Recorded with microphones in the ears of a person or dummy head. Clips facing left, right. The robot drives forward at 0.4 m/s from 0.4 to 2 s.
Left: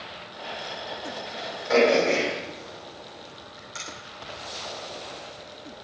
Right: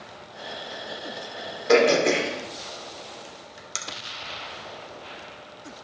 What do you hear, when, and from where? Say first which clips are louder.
1.7 s throat clearing: right 1 dB; 85° right, 2.5 m; by 3.8 s 80° right, 2.5 m